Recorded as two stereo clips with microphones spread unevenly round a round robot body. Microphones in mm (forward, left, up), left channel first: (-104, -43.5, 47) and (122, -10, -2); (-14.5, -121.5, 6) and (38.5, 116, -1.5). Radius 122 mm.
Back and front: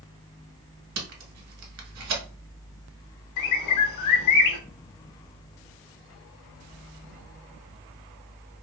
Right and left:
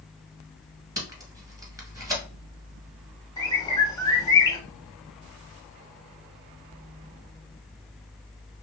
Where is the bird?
Straight behind, 0.7 m.